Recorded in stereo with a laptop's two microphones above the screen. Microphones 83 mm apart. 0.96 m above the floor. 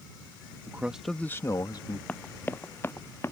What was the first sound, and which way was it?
A man speaking, 25° right (ahead or behind).